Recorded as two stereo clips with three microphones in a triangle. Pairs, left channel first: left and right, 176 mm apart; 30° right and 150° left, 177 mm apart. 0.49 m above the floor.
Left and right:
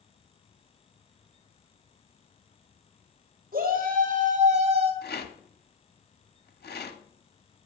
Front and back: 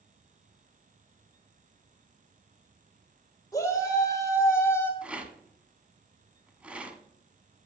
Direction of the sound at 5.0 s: 70° left.